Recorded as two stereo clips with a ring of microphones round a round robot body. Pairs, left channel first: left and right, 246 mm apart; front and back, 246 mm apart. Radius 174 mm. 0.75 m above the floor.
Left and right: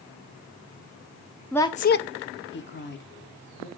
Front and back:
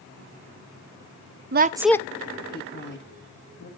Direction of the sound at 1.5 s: 175° left.